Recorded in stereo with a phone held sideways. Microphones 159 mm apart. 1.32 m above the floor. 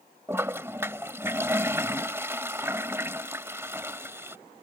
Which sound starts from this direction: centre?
A toilet flushing, at 0.3 s.